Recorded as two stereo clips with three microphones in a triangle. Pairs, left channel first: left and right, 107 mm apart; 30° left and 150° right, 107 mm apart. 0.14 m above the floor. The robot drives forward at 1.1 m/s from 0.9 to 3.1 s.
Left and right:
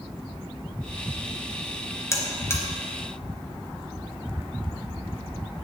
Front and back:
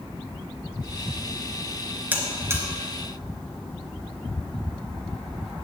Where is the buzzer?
140° left, 2 m; by 2.6 s 150° left, 2.5 m.